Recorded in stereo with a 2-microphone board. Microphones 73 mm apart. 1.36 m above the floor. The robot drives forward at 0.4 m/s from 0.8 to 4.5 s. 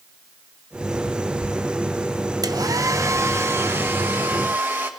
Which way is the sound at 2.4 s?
60° right (ahead or behind).